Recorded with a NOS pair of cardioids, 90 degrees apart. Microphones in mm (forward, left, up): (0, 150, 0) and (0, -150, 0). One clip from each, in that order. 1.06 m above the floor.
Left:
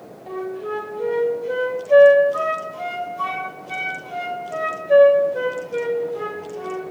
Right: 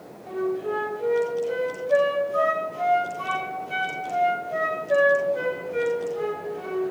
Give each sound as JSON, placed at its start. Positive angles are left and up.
{"t": 0.3, "sound": "a flute", "azimuth_deg": 40, "distance_m": 3.0}